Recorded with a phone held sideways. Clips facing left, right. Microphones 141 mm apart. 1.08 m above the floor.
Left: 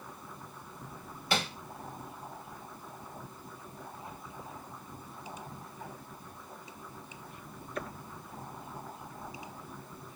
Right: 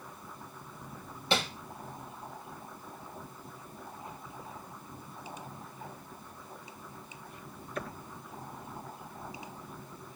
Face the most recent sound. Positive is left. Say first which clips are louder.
# right 1 dB
turn(degrees=-25)  # may be behind; listen again after turning